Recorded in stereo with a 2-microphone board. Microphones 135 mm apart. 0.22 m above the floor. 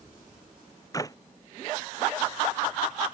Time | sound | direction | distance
0.9 | a clap | 25° left (ahead or behind) | ?